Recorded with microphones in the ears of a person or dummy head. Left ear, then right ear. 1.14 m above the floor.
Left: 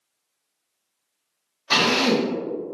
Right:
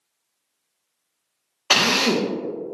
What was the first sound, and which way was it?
A drill, 60° right (ahead or behind).